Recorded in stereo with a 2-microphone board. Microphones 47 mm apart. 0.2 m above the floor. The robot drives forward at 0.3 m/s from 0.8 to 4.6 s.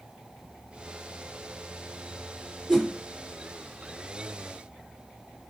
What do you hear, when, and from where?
2.7 s a whoosh: 10° right (ahead or behind), 3 m